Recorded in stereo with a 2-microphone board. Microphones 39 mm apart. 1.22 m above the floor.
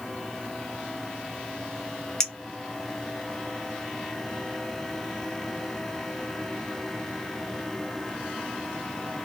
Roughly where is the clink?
Centre.